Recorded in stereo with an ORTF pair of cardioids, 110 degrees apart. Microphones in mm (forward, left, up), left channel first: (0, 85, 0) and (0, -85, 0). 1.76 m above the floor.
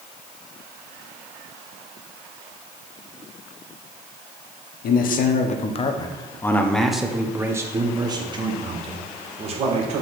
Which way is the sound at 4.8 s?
65° left.